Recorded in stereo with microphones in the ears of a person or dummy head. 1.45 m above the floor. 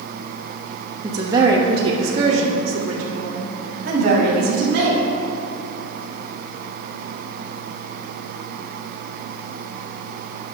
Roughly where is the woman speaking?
Centre.